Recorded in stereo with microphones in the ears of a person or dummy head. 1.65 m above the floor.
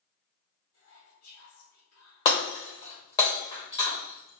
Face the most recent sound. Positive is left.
turn(degrees=20)  # may be behind; listen again after turning